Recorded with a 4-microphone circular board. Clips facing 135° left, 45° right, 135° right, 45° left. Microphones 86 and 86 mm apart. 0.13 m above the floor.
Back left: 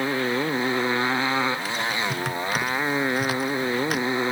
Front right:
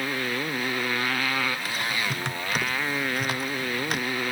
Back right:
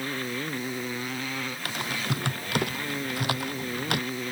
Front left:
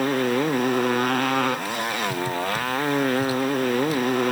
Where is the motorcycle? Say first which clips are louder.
Back left 5 dB, front left 11 dB; 70° left.